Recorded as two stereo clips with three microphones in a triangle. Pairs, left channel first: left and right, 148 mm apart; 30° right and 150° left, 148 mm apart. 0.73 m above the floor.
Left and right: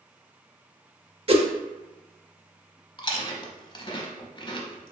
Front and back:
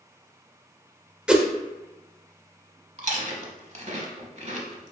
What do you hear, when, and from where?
1.3 s a whoosh: 125° right, 0.6 m
3.0 s chewing: 135° left, 0.8 m